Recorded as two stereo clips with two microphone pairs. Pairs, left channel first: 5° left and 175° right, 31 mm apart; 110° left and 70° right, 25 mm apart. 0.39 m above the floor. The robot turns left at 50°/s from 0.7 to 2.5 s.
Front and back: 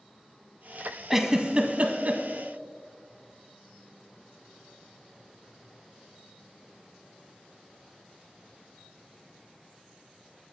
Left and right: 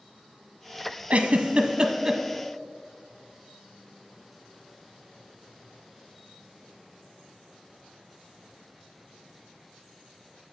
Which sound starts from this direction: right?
A giggle, at 1.1 s.